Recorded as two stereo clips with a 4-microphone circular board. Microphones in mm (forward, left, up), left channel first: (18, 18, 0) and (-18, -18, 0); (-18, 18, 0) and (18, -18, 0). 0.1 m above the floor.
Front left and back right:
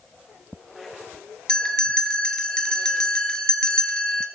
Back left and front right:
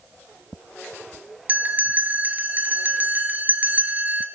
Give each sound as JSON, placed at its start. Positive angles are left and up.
{"t": 1.5, "sound": "a bell", "azimuth_deg": -20, "distance_m": 1.7}